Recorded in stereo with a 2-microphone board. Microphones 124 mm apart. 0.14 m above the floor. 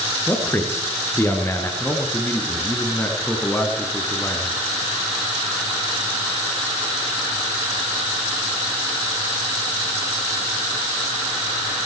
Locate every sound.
0.3 s a man speaking: 20° left (ahead or behind), 2.5 m
1.8 s a man speaking: 15° left (ahead or behind), 1.7 m